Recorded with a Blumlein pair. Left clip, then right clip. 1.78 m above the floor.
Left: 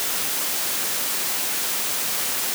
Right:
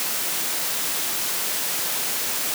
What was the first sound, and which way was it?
Only background noise.